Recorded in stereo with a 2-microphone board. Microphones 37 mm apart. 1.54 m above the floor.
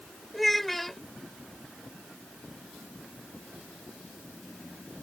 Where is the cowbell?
I don't hear a cowbell.